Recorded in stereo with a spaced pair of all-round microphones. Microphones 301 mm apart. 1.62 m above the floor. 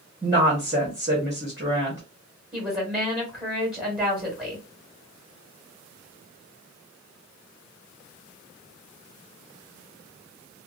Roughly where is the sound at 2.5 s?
Centre.